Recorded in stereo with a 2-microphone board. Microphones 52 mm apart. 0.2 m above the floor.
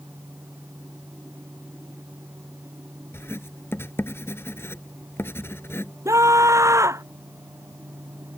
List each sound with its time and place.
3.1 s writing: 50° left (ahead or behind)
6.0 s a scream: 75° right (ahead or behind)